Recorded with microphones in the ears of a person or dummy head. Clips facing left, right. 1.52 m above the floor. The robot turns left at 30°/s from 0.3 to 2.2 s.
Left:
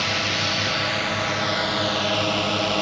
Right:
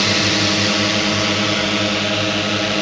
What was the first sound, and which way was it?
A drone, 95° right.